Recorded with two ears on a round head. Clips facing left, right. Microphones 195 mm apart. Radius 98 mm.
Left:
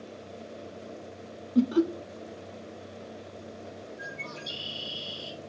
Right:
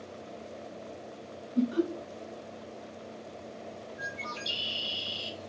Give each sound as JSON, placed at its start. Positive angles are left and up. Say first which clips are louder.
{"t": 1.6, "sound": "laughter", "louder": "left 4 dB", "side_deg": 60, "distance_m": 0.7}
{"t": 4.0, "sound": "a bird", "louder": "even", "side_deg": -80, "distance_m": 2.0}